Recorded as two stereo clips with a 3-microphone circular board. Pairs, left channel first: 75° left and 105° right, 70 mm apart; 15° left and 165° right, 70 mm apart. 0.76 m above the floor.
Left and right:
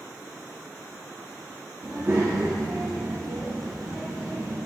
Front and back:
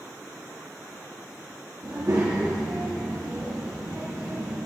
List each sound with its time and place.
1.8 s a child speaking: 150° right, 0.9 m; by 4.6 s 140° right, 2 m